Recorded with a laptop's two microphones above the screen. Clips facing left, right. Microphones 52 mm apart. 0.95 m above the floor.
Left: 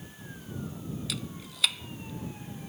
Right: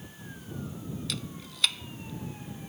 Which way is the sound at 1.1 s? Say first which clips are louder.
Even; centre (ahead or behind).